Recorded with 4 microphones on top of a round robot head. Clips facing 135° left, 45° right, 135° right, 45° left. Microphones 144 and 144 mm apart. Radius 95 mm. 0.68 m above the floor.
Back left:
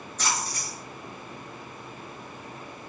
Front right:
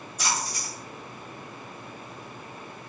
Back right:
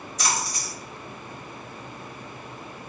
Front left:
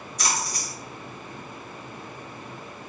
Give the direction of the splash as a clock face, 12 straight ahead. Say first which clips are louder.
Even, back right 1 dB; 4 o'clock.